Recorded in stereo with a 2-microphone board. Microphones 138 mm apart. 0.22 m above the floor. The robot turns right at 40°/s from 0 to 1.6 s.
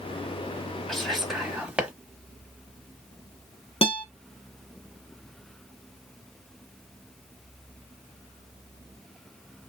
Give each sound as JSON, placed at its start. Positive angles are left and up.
{"t": 0.9, "sound": "whispering", "side_deg": 5, "distance_m": 1.1}
{"t": 3.8, "sound": "a guitar", "side_deg": 45, "distance_m": 1.1}